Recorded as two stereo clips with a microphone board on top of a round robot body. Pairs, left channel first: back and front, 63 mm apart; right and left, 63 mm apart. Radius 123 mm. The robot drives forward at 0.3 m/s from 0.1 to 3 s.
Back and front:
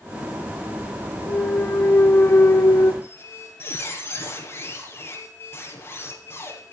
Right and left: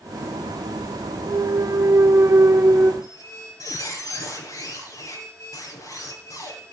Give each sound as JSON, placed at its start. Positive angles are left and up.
{"t": 1.3, "sound": "a clunk", "azimuth_deg": 120, "distance_m": 1.0}
{"t": 3.0, "sound": "a squeak", "azimuth_deg": -125, "distance_m": 7.5}